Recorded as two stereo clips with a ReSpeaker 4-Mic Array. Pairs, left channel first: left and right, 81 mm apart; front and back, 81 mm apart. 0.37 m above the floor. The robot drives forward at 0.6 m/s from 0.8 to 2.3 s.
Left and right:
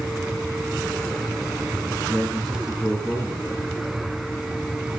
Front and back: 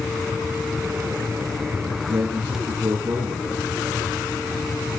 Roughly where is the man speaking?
Behind.